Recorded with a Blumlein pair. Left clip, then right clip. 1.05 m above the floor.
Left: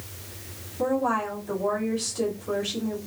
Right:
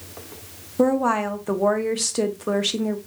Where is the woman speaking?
45° right, 0.9 m.